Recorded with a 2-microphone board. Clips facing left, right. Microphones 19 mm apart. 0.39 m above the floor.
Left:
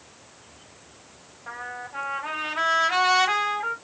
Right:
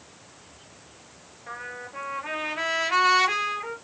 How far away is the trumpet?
About 1.9 m.